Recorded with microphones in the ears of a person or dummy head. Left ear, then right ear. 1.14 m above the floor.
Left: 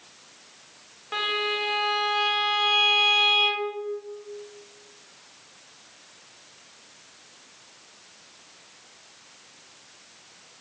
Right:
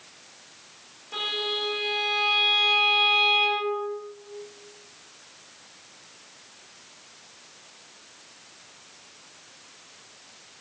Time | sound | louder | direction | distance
1.1 | a violin | left 2 dB | 60° left (ahead or behind) | 0.7 m